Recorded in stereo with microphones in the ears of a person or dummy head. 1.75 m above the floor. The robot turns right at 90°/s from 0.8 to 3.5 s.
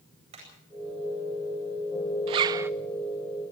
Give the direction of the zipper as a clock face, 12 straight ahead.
2 o'clock.